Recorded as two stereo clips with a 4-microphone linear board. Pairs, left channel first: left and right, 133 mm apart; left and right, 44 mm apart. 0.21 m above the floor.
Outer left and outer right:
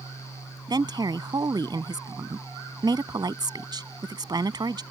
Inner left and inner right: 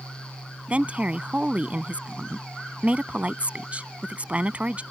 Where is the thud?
No thud in this recording.